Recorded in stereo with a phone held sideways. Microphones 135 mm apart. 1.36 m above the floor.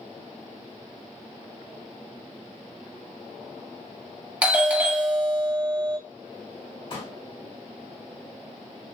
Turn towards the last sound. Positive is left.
turn(degrees=40)  # may be behind; listen again after turning